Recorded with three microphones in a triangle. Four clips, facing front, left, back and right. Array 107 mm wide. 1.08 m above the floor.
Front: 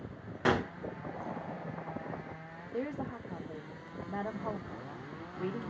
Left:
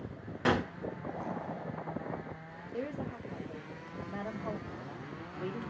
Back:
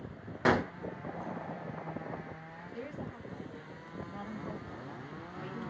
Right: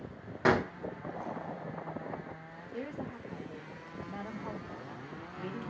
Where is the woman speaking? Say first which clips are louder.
Left 2 dB, front 6 dB; straight ahead, 1.4 m.